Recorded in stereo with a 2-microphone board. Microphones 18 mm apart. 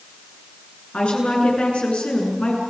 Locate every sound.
0.9 s a woman speaking: 85° left, 9 m; by 2.6 s 80° left, 7.5 m